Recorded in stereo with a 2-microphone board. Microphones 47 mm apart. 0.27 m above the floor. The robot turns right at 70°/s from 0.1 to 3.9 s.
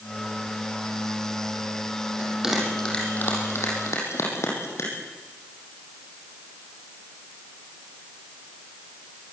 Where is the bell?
30° right (ahead or behind), 6 m; by 5.0 s 85° left, 6 m.